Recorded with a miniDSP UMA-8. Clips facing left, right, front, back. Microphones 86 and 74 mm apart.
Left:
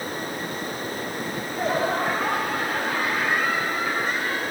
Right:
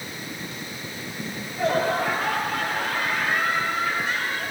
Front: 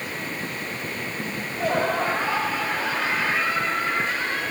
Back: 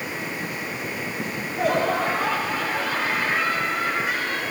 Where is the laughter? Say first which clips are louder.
Right 3 dB, back 3 dB; 140° left, 8.5 m.